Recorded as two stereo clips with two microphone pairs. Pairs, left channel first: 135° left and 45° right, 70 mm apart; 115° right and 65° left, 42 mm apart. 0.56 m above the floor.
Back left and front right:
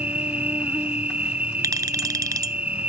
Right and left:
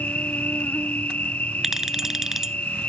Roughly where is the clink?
Ahead.